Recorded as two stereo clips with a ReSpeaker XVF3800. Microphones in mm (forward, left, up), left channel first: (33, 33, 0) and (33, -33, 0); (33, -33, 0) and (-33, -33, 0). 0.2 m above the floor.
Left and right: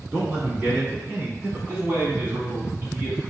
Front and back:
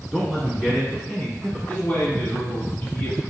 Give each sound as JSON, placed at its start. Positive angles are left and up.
{"t": 0.1, "sound": "a man speaking", "azimuth_deg": -85, "distance_m": 1.4}
{"t": 1.7, "sound": "a man speaking", "azimuth_deg": -50, "distance_m": 1.9}